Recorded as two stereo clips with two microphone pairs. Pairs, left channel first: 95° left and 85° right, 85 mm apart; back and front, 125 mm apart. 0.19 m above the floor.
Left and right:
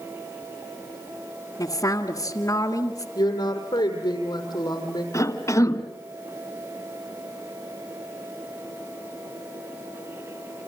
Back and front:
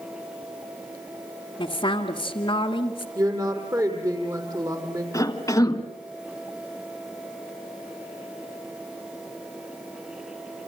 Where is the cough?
130° left, 1.8 m.